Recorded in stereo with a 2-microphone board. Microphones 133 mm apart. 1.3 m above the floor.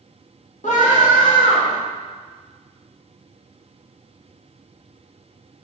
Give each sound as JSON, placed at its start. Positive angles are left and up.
{"t": 0.6, "sound": "a scream", "side_deg": 65, "distance_m": 3.5}